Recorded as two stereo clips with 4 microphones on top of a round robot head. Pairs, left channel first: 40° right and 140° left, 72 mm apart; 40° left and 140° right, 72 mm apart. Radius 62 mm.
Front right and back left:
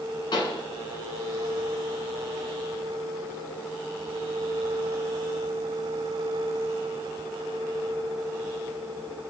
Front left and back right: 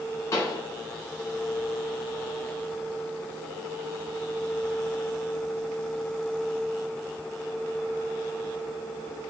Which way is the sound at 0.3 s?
10° right.